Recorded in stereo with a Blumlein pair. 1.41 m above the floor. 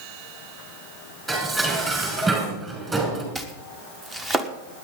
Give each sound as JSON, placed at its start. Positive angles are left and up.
{"t": 1.3, "sound": "dishes clattering", "azimuth_deg": -15, "distance_m": 5.0}
{"t": 3.4, "sound": "chopping", "azimuth_deg": -15, "distance_m": 1.3}